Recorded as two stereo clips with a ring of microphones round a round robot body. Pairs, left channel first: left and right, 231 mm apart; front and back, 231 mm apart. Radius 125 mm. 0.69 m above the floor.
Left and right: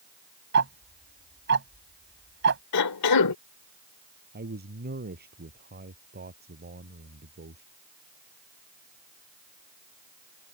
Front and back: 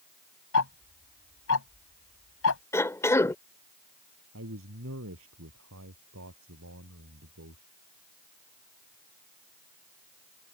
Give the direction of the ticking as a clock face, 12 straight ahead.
1 o'clock.